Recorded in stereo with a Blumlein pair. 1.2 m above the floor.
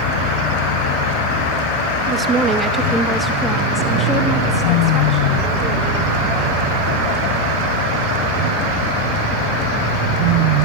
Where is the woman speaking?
25° right, 1.4 m; by 6.6 s 25° left, 5.5 m.